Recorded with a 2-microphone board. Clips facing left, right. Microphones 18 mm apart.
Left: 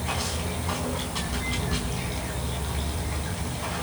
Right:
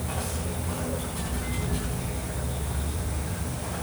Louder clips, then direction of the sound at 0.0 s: Left 3 dB; 55° left (ahead or behind).